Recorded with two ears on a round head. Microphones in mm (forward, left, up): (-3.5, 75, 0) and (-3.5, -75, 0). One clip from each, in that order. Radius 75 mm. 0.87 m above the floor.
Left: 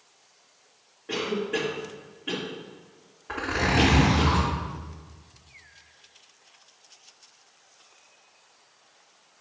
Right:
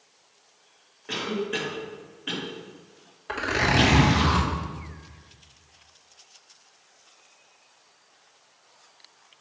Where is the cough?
55° right (ahead or behind), 1.5 m.